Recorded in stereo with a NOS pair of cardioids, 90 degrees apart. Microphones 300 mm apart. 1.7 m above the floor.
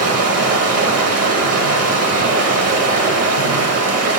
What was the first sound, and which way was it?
Running water, 55° right.